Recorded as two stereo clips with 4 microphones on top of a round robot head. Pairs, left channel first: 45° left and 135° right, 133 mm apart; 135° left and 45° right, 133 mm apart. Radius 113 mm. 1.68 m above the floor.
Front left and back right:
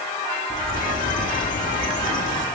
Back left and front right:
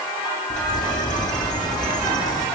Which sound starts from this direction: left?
A bird, at 0.5 s.